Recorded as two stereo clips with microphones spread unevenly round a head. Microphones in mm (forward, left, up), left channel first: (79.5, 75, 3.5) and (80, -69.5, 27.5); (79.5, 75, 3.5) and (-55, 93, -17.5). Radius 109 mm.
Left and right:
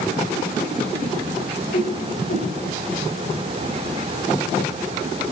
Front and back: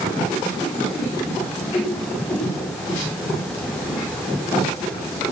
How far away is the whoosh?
About 6.5 m.